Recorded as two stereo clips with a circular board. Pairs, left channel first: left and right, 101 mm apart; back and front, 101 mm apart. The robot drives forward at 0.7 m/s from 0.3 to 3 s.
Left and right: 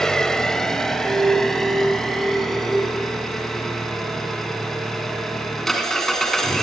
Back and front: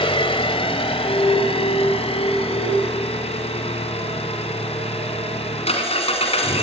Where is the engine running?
175° left, 1.6 m; by 6.6 s straight behind, 3.5 m.